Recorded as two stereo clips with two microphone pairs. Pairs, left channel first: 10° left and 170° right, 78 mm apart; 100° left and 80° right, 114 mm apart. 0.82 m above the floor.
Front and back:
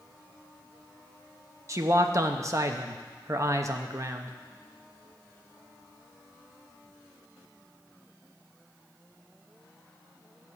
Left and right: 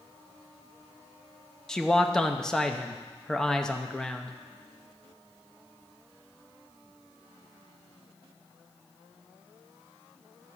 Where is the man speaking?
Straight behind, 0.8 m.